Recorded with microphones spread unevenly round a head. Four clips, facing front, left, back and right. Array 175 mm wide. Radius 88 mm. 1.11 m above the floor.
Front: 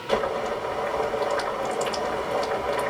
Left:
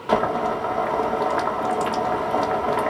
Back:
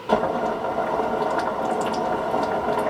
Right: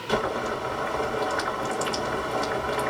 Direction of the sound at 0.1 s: 140° left.